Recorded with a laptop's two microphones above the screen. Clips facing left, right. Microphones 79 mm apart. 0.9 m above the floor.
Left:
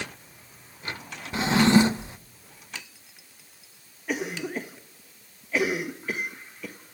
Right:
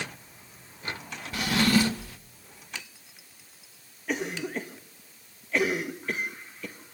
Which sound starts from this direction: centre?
A cough, at 4.1 s.